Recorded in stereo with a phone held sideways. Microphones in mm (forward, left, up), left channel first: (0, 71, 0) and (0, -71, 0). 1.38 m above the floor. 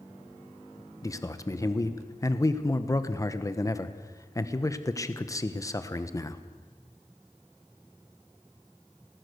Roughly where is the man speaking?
Left.